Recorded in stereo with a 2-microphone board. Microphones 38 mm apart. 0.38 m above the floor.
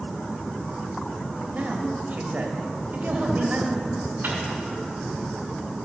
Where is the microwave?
70° right (ahead or behind), 3 m.